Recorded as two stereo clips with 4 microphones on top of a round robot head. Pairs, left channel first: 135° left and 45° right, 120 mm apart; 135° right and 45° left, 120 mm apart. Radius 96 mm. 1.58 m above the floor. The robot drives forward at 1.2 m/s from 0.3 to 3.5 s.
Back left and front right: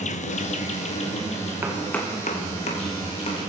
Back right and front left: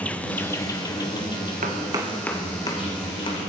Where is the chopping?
20° left, 0.7 m; by 3.4 s 175° left, 1.8 m.